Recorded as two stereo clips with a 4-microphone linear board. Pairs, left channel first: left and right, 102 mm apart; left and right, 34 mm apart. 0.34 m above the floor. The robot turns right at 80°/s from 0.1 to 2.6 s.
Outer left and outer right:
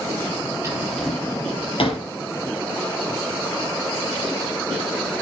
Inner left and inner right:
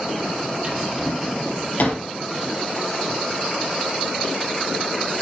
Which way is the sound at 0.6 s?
30° right (ahead or behind).